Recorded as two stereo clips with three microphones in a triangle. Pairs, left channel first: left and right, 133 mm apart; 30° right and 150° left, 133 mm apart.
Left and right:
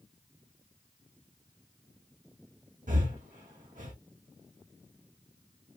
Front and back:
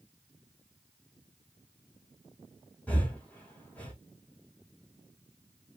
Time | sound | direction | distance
2.9 | breathing | 110° right | 1.5 m